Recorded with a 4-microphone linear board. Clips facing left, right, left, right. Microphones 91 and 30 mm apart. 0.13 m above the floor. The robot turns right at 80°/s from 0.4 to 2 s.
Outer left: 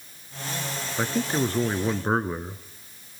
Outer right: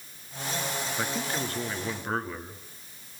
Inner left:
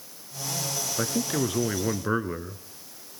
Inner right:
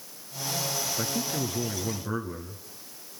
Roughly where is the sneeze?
No sneeze in this recording.